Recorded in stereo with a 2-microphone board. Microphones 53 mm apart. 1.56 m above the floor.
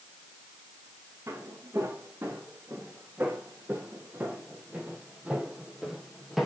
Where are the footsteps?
55° right (ahead or behind), 4 m; by 6.5 s 5° right (ahead or behind), 2.5 m.